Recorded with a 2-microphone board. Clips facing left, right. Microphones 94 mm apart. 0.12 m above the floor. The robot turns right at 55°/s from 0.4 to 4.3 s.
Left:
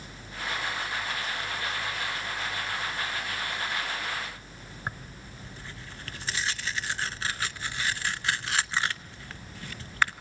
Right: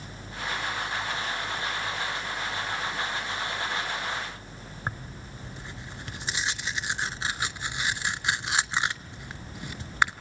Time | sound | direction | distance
4.9 | tearing paper | 20° right (ahead or behind) | 0.6 m